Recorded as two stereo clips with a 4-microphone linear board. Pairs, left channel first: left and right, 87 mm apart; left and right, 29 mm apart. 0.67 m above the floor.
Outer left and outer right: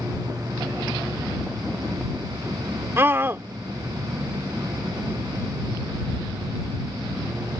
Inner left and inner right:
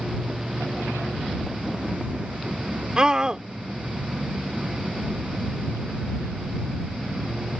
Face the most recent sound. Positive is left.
turn(degrees=-30)  # may be behind; listen again after turning